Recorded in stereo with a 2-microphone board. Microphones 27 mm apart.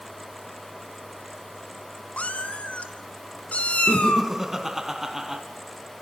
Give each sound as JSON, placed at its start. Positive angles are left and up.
{"t": 2.2, "sound": "a cat meowing", "side_deg": 60, "distance_m": 1.1}
{"t": 3.9, "sound": "laughter", "side_deg": -15, "distance_m": 1.0}